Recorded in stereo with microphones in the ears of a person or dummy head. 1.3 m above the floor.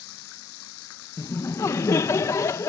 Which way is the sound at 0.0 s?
80° left.